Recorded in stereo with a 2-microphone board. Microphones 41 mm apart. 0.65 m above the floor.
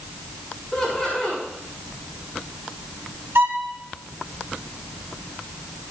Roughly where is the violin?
Right.